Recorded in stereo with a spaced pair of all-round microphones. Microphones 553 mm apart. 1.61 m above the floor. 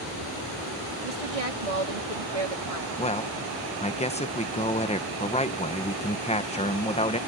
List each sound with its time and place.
1.0 s a woman speaking: 75° right (ahead or behind); by 2.9 s 70° right (ahead or behind)
3.0 s a man speaking: 10° left (ahead or behind)